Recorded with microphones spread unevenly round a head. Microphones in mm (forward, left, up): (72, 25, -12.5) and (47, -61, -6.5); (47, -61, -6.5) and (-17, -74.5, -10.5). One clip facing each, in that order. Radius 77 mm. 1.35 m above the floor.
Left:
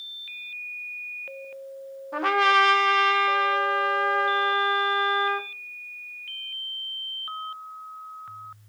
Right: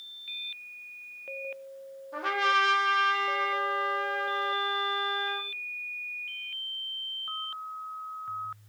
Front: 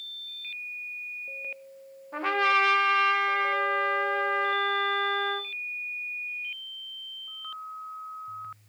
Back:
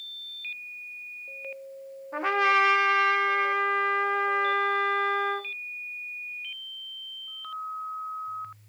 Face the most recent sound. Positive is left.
turn(degrees=115)